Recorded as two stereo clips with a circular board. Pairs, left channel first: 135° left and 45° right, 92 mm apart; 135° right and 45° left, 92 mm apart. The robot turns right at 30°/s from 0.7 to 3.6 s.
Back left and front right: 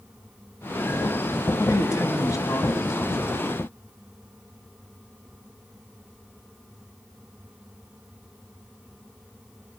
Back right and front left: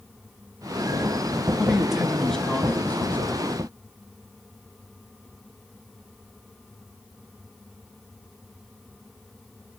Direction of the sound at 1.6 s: 125° left.